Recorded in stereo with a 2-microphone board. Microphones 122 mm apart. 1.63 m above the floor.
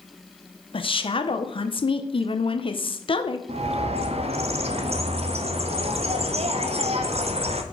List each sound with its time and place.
0.7 s a woman speaking: 45° left (ahead or behind), 0.8 m
3.5 s a bird: 55° right (ahead or behind), 0.6 m